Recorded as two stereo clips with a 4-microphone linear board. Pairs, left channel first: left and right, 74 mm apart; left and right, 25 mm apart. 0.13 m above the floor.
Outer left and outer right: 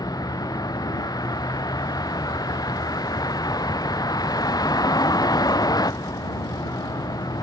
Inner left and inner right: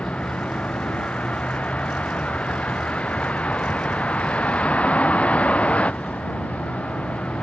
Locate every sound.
0.0 s a vehicle: 60° left (ahead or behind)